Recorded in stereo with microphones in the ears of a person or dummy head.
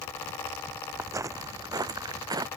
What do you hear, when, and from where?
1.0 s footsteps: 15° right (ahead or behind); by 2.5 s 20° right (ahead or behind)